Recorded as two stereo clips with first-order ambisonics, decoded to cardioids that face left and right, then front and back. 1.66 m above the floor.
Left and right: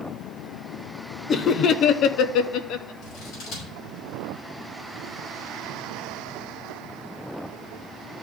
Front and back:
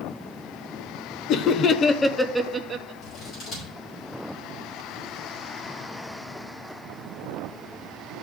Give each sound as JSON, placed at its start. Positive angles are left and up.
{"t": 1.3, "sound": "laughter", "azimuth_deg": 30, "distance_m": 0.7}
{"t": 3.0, "sound": "scissors", "azimuth_deg": 50, "distance_m": 6.0}